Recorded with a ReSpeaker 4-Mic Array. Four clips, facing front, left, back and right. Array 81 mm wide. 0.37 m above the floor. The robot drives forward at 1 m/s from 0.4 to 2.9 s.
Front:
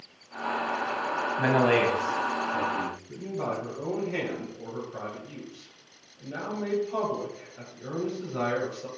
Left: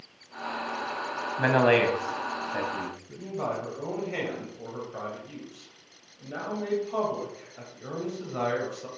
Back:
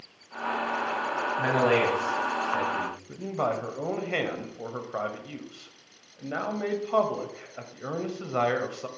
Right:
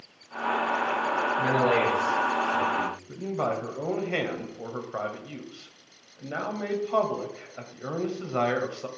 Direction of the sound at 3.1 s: 150° right.